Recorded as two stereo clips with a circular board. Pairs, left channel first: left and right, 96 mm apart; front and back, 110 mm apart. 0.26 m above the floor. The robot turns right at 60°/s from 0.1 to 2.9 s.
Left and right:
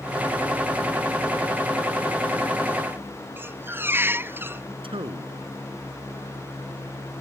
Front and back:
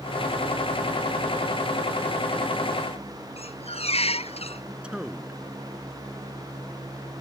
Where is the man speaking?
100° right.